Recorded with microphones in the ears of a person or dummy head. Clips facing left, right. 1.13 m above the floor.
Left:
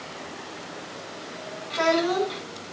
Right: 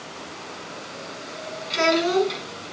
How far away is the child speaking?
About 8.5 m.